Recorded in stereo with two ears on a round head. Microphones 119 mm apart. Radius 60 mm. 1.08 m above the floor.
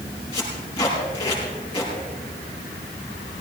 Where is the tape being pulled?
45° left (ahead or behind), 7 m.